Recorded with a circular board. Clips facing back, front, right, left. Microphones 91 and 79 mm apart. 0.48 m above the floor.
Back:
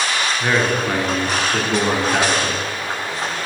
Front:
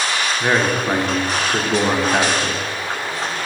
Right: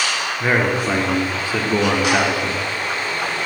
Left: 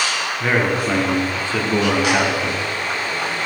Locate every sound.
0.4 s a man speaking: 30° right, 0.8 m